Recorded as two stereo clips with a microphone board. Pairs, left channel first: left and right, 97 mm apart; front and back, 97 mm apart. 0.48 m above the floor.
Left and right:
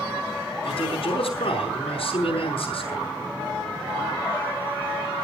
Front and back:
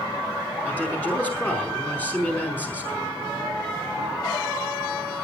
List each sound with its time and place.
0.7 s a man speaking: 75° left, 5 m